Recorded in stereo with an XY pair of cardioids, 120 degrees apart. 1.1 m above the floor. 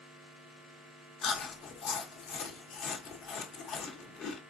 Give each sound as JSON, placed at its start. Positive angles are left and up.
{"t": 1.2, "sound": "chewing", "azimuth_deg": 65, "distance_m": 0.8}